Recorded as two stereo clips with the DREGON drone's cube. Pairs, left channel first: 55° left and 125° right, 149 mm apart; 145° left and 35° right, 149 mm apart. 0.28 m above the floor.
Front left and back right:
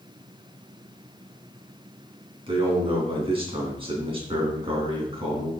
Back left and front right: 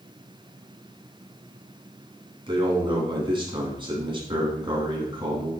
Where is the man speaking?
80° right, 2.5 m.